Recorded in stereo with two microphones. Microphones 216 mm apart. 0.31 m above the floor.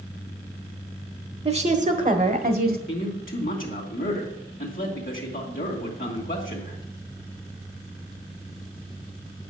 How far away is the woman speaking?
About 1.1 m.